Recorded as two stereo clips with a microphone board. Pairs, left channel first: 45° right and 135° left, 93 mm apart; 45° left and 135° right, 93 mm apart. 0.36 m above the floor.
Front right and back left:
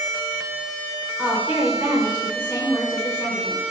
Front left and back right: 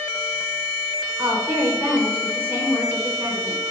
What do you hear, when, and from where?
1.2 s a woman speaking: 165° right, 0.9 m